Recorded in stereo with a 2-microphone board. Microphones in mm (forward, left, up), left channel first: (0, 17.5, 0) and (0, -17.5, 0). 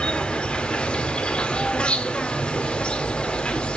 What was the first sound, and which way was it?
An insect, 25° left (ahead or behind).